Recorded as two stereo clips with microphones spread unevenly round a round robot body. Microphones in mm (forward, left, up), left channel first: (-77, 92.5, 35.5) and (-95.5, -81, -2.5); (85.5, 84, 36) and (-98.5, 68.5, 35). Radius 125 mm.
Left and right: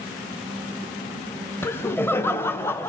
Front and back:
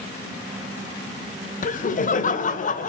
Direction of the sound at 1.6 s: 5° right.